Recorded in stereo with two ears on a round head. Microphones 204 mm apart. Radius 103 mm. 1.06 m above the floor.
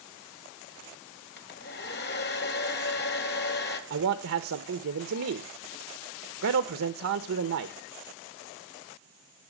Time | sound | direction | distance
1.4 | a hair dryer | 50° left (ahead or behind) | 2.0 m
3.9 | a man speaking | 70° right (ahead or behind) | 1.1 m